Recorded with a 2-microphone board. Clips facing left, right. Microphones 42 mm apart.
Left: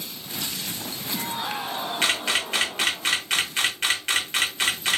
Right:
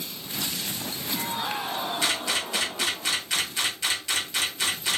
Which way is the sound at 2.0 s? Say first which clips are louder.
Left 6 dB; 50° left (ahead or behind).